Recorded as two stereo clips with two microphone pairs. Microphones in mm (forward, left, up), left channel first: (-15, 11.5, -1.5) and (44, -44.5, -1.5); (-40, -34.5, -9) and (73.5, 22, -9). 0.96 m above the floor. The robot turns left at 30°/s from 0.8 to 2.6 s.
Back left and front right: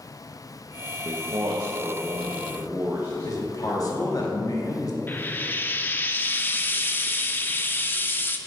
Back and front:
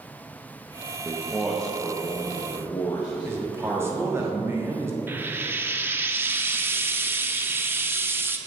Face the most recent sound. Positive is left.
turn(degrees=85)